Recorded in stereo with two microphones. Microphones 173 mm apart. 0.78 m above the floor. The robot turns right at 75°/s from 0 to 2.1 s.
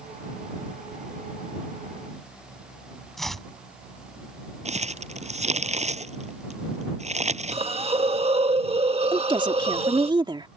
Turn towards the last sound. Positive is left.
turn(degrees=-25)  # may be behind; listen again after turning